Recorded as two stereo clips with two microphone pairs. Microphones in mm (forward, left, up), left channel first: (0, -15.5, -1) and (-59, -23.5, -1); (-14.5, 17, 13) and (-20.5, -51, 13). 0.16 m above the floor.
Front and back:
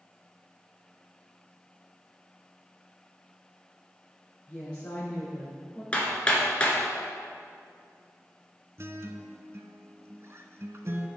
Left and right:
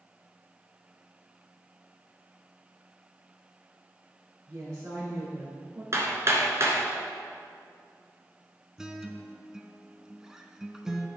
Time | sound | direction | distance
4.5 | a woman speaking | 65° right | 3 m
5.9 | hammering | 60° right | 1.6 m
8.8 | a guitar | 170° right | 0.6 m